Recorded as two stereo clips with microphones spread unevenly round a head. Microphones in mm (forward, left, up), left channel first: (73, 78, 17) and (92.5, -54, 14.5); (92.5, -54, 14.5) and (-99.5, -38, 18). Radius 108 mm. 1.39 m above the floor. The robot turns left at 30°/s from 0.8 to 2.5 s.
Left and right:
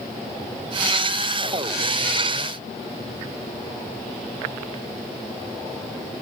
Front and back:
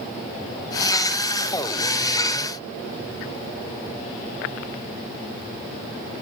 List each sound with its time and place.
Only background noise.